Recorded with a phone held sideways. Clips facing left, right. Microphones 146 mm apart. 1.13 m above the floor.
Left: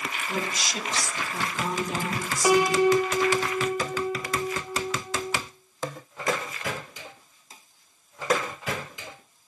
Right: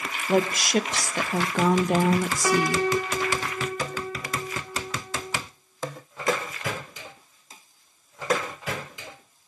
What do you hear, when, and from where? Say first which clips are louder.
0.3 s a woman speaking: right 11 dB; 60° right (ahead or behind), 0.6 m
2.4 s a piano: left 5 dB; 15° left (ahead or behind), 0.5 m